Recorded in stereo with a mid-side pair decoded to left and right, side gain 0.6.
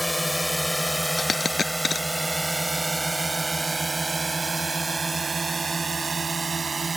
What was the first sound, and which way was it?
A drone, 5° left.